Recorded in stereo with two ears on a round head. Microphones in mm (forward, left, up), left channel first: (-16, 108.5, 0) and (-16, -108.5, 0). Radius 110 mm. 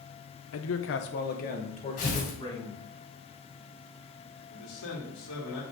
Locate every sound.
0.5 s a man speaking: 70° left (ahead or behind), 0.7 m; by 2.8 s 20° left (ahead or behind), 1.7 m
2.0 s tearing paper: 35° left (ahead or behind), 2.5 m
4.5 s a man speaking: 75° left (ahead or behind), 3 m